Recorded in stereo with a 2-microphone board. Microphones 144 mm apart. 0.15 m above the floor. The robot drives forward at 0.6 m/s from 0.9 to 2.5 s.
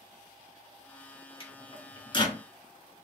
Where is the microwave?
40° left (ahead or behind), 1.2 m; by 2.4 s 35° left (ahead or behind), 1.4 m.